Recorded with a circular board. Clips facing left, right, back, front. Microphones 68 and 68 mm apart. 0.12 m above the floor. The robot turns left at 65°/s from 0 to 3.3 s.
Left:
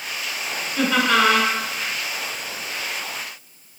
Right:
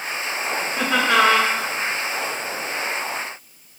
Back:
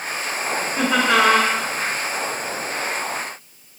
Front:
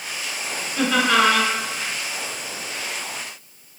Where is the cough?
I don't hear a cough.